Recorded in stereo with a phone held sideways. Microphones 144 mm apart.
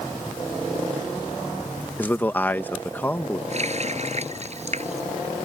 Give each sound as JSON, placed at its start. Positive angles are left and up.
{"t": 2.0, "sound": "a man speaking", "side_deg": 15}
{"t": 3.5, "sound": "a running tap", "side_deg": -50}